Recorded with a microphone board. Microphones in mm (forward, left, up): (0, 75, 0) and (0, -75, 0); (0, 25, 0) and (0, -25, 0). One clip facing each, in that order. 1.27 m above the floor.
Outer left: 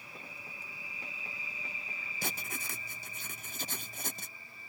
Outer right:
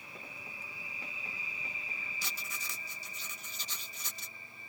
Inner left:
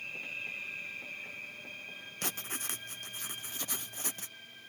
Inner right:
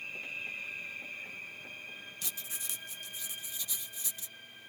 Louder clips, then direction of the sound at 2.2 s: Outer left 5 dB, inner left 5 dB; 50° left (ahead or behind).